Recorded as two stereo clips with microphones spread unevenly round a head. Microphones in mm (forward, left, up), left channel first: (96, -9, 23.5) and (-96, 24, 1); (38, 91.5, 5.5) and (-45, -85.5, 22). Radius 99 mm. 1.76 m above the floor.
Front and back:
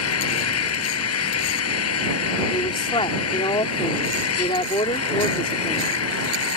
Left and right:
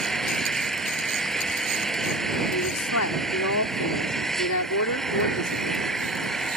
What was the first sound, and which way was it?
An engine running, 25° right.